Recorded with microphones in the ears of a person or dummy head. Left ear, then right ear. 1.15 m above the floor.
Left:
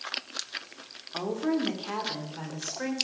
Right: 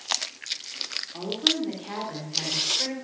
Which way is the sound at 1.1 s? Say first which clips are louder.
Right 4 dB; 30° left (ahead or behind).